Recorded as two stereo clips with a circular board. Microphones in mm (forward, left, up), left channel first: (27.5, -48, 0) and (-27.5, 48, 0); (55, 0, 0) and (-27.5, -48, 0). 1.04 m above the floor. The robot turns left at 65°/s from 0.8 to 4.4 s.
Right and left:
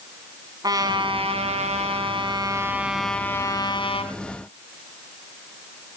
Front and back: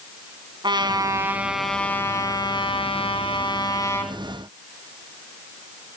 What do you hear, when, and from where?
0.6 s a trumpet: 175° left, 3.5 m; by 4.1 s 45° right, 3.5 m